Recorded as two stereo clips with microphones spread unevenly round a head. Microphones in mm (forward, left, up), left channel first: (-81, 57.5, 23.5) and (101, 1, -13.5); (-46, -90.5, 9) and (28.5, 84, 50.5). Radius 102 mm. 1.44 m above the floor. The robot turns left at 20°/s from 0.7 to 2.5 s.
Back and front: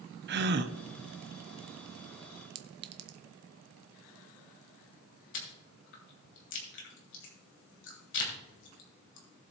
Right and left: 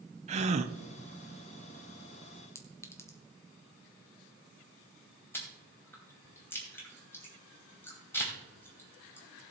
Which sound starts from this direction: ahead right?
A clink, at 2.5 s.